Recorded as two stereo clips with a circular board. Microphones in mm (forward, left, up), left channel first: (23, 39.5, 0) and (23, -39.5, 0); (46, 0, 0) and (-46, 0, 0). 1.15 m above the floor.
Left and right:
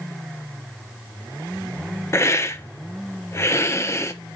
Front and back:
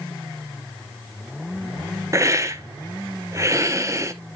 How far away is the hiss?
About 0.7 m.